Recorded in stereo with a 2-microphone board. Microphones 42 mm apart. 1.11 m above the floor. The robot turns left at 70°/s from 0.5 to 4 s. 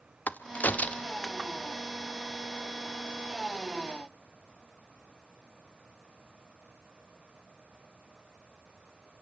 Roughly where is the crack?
Left.